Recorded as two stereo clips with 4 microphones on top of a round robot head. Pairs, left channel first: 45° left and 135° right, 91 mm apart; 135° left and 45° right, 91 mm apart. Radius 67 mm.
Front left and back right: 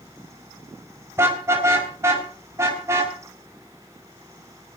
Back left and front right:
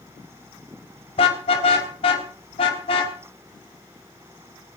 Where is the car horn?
160° left, 3.5 m.